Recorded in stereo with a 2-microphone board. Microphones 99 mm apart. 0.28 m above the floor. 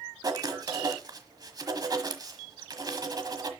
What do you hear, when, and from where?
0.2 s writing: 40° right (ahead or behind), 1.3 m